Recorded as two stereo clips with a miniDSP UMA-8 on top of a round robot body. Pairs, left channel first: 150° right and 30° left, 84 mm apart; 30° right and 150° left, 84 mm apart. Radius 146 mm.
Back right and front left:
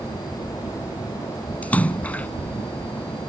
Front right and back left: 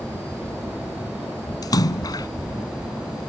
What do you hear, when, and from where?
1.6 s a splash: 75° right